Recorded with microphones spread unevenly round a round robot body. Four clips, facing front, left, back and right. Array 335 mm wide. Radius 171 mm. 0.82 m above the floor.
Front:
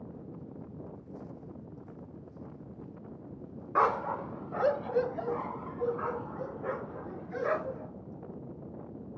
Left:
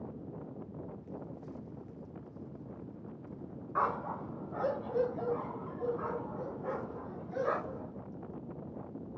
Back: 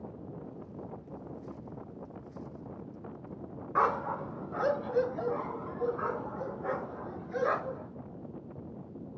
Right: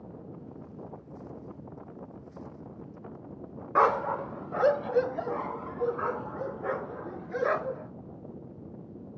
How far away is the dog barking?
About 0.5 m.